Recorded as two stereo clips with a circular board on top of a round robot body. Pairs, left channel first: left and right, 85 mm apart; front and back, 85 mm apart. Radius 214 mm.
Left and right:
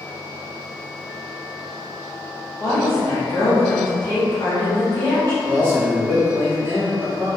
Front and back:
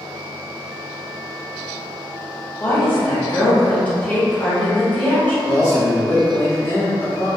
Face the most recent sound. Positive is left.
turn(degrees=-40)